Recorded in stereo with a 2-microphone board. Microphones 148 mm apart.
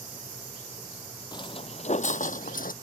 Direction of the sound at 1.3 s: 30° left (ahead or behind).